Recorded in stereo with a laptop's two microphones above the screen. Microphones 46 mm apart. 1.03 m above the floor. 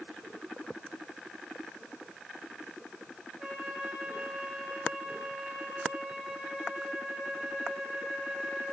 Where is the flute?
25° right (ahead or behind), 2.5 m.